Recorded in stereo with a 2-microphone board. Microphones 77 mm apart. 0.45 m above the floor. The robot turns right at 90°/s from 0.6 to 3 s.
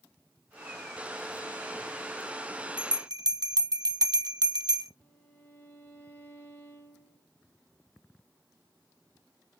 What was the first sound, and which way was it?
A bell, 85° right.